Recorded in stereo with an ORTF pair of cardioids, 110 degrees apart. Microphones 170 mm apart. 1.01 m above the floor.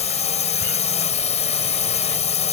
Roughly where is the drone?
Ahead left.